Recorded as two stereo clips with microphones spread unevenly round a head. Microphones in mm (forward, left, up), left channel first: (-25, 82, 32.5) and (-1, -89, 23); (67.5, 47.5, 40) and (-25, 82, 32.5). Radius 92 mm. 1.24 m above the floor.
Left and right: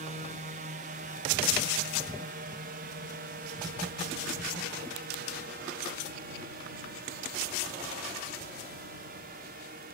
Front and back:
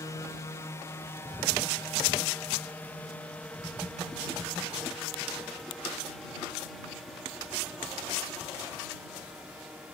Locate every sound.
0.0 s a drone: 75° right; by 9.9 s 115° right